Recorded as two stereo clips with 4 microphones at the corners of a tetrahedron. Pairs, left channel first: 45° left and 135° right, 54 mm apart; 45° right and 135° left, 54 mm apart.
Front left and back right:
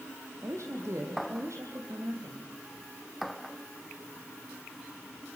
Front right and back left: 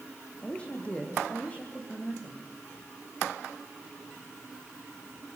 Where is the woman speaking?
115° right, 5 m; by 2.5 s 105° right, 6 m.